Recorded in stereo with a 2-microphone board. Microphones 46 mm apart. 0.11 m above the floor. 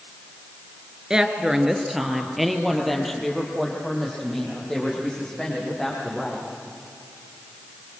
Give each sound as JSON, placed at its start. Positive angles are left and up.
{"t": 1.1, "sound": "a woman speaking", "side_deg": -15, "distance_m": 1.8}